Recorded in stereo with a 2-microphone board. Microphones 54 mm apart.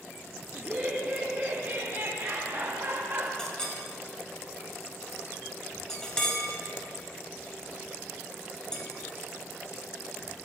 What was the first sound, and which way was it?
Laughter, 25° right (ahead or behind).